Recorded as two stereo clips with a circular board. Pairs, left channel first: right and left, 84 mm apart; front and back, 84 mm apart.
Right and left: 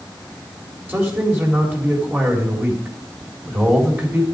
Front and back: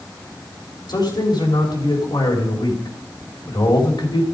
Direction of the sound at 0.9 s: 25° left.